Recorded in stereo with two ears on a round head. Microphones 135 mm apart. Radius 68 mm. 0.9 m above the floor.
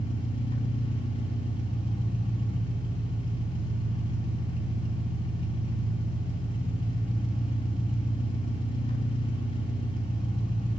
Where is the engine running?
35° left (ahead or behind), 3.5 m.